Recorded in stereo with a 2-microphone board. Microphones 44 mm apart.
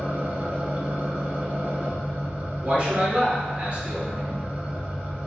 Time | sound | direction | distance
0.0 | an engine running | 40° right (ahead or behind) | 1.7 m
2.6 | a man speaking | 30° right (ahead or behind) | 1.6 m